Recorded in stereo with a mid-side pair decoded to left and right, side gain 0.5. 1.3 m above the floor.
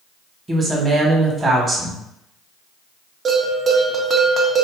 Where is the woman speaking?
30° right, 1.4 m.